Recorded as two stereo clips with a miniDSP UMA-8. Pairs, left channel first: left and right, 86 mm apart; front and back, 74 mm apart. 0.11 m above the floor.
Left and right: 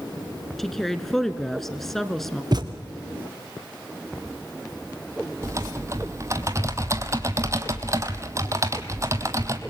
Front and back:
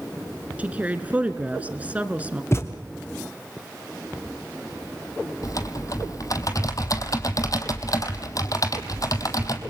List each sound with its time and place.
0.6 s a woman speaking: 170° left, 1.3 m
2.5 s a thud: 55° right, 2.5 m
5.4 s typing on a keyboard: 40° right, 1.6 m